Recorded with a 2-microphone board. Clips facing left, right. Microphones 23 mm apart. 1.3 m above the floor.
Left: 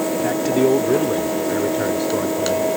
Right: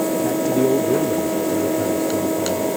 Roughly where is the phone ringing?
No phone ringing in this recording.